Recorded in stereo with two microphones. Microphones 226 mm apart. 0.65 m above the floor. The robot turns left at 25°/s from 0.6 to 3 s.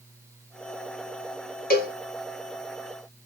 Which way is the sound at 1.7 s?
40° left (ahead or behind).